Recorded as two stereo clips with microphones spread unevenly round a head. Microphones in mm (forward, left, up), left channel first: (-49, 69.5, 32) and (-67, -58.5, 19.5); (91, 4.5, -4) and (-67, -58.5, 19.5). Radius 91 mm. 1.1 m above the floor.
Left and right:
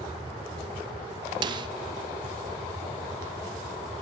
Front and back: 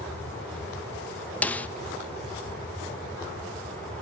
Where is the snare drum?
50° right, 0.5 m.